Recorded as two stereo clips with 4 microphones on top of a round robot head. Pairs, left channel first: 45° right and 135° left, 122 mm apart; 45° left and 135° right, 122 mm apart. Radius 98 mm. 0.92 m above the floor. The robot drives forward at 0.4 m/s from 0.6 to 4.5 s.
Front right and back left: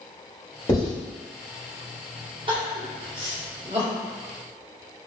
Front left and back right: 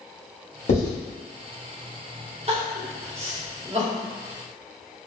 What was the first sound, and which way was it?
Writing, 20° left.